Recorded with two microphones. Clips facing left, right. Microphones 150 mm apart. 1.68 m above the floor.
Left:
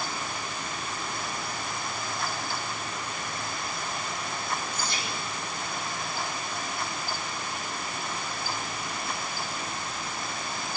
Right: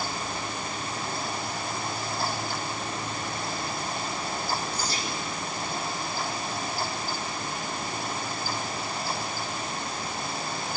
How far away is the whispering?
About 4.5 m.